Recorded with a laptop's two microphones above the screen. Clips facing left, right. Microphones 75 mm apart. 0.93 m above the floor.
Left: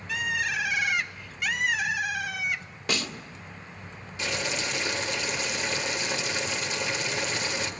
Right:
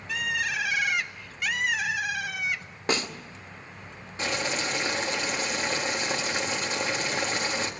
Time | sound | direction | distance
0.1 | a bird | centre (ahead or behind) | 1.0 m
2.9 | a snare drum | 35° right (ahead or behind) | 2.0 m
4.2 | boiling | 40° right (ahead or behind) | 1.8 m